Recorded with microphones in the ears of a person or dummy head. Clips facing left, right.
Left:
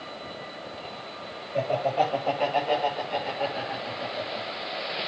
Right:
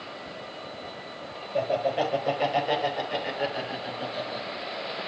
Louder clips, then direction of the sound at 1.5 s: Even; 15° right (ahead or behind).